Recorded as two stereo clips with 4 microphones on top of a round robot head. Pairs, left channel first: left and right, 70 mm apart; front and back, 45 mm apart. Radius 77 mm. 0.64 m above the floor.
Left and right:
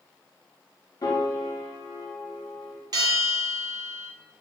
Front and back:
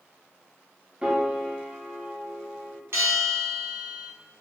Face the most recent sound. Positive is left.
turn(degrees=-135)